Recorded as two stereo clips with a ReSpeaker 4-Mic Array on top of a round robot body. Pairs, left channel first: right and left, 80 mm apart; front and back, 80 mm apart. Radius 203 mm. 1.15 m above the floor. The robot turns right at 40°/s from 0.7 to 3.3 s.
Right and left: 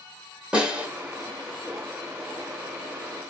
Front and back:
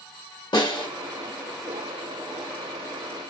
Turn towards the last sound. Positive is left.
turn(degrees=120)